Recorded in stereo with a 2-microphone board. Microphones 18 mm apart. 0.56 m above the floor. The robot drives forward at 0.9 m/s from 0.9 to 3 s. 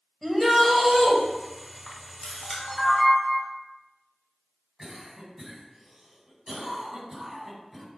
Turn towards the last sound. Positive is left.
turn(degrees=-20)  # may be behind; listen again after turning